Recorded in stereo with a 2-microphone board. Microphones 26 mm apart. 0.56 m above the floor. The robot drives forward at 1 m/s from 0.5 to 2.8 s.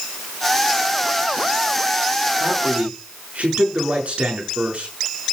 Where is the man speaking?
70° right (ahead or behind), 6.5 m; by 4.9 s 65° right (ahead or behind), 6.5 m.